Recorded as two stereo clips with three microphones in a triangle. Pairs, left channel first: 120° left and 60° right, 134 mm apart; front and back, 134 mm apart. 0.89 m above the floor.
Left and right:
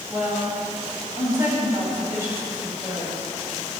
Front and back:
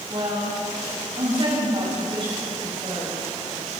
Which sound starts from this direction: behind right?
A woman speaking, at 0.1 s.